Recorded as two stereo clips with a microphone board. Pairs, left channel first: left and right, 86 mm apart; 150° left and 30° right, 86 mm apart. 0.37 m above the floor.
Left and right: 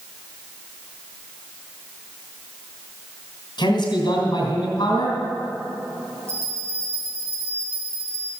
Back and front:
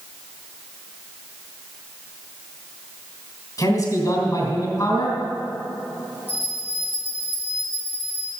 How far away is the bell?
About 4.5 m.